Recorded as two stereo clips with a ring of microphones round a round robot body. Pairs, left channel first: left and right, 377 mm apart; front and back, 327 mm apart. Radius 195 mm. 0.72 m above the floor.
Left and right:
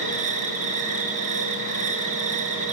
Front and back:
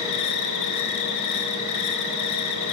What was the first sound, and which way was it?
An insect, 20° right.